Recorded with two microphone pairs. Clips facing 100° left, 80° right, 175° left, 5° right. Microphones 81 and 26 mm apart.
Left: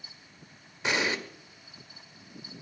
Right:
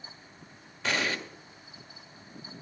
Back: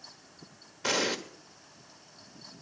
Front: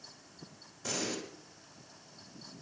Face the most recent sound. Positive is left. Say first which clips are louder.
# left 1 dB, back 8 dB
turn(degrees=175)